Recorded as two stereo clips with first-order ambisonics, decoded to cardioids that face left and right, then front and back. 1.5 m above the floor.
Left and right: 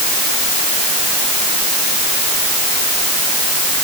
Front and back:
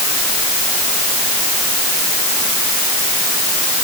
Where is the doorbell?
No doorbell in this recording.